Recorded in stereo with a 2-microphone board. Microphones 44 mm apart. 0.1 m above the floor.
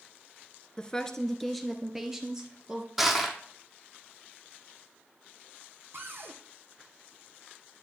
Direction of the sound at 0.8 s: 20° left (ahead or behind).